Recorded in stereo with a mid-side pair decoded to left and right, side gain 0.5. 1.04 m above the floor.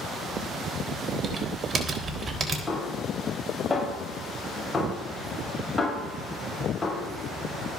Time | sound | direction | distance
1.2 | typing on a keyboard | 35° right | 3.5 m
2.7 | a snare drum | 15° left | 7 m